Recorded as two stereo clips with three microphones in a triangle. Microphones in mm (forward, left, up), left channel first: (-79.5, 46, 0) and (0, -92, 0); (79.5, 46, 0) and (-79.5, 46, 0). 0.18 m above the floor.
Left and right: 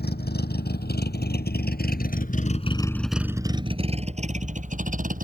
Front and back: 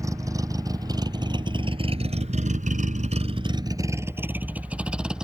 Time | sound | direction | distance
0.0 | a vehicle | 110° left | ?